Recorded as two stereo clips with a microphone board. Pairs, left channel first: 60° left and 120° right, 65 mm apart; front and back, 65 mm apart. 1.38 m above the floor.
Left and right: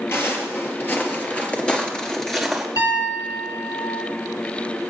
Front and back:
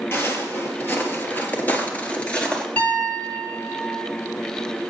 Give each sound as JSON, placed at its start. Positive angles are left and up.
{"t": 0.1, "sound": "footsteps", "azimuth_deg": 30, "distance_m": 1.9}
{"t": 2.8, "sound": "a piano", "azimuth_deg": 65, "distance_m": 1.9}